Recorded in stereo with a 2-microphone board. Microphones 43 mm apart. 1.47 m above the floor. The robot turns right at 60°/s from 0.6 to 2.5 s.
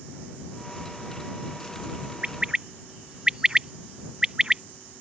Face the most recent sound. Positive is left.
turn(degrees=-20)  # may be behind; listen again after turning